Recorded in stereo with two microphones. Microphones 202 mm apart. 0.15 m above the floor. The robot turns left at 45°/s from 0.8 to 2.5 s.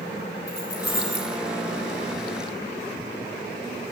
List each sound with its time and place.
0.5 s keys jangling: 50° left (ahead or behind), 4 m; by 1.4 s 70° left (ahead or behind), 4 m